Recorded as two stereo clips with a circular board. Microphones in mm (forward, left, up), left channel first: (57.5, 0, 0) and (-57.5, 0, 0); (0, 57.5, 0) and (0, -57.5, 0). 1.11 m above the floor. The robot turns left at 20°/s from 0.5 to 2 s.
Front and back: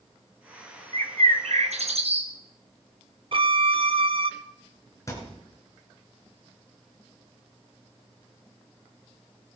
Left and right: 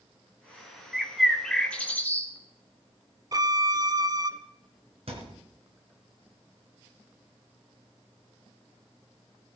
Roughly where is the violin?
Behind right.